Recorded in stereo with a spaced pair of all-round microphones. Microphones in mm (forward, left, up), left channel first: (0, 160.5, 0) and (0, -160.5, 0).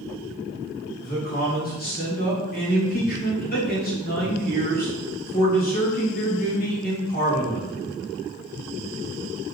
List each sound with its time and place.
1.0 s a man speaking: 30° left (ahead or behind), 2.5 m